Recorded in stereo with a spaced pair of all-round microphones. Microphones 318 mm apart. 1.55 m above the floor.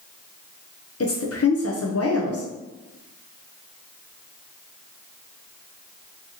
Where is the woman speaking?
50° left (ahead or behind), 0.6 m.